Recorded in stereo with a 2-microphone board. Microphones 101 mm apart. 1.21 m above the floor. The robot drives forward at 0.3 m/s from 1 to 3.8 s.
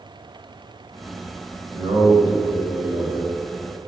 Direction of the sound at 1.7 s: 65° right (ahead or behind).